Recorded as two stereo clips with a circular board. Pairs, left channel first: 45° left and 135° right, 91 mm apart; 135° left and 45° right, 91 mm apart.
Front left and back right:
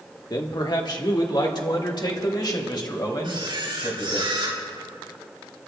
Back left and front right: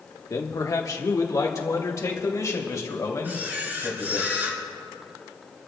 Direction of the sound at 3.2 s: 115° right.